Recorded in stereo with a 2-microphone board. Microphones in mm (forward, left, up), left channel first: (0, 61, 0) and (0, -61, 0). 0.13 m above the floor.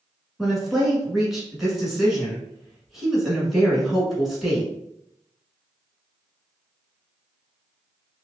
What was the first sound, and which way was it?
A woman speaking, centre (ahead or behind).